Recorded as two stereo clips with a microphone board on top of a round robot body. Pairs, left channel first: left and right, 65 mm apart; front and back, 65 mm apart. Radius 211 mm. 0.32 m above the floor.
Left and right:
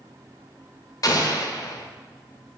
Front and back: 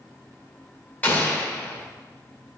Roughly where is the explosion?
Ahead left.